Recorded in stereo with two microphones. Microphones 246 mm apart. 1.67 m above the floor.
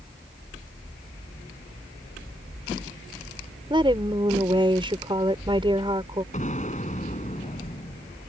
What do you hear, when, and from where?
3.7 s a woman speaking: 20° right (ahead or behind)
6.3 s an explosion: 30° left (ahead or behind)